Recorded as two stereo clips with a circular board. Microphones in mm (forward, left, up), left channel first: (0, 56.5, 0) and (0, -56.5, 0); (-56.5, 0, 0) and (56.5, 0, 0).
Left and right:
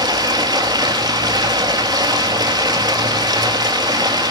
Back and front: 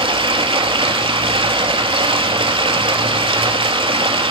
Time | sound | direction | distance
0.0 | running water | 40° right | 0.9 m